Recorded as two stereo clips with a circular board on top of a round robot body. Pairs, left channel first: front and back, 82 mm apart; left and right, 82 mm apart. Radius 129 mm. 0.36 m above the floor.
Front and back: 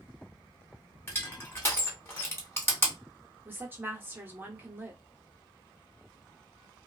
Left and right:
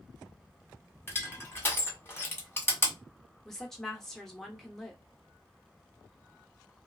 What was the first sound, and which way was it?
Crushing, 45° left.